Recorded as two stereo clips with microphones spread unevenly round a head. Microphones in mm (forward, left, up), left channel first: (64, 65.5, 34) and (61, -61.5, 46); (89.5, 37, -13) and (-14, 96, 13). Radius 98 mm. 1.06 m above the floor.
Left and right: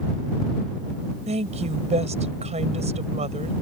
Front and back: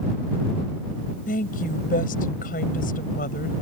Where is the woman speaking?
60° right.